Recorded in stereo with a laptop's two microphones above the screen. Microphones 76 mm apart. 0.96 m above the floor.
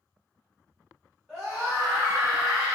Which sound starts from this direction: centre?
A scream, at 1.3 s.